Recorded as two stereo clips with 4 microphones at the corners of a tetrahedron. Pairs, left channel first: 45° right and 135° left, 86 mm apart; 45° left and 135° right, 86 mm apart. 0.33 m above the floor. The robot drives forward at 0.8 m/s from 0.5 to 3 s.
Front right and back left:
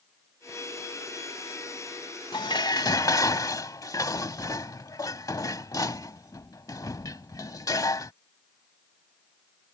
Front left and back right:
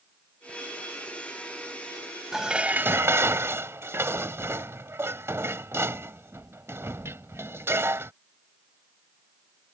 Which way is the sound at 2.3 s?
50° right.